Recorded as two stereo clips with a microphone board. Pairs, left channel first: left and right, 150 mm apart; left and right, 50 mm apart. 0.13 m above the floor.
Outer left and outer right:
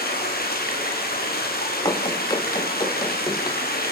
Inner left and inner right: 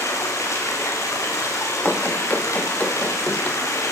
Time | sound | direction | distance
0.0 | running water | 90° left | 7 m
1.9 | running footsteps | 25° left (ahead or behind) | 3 m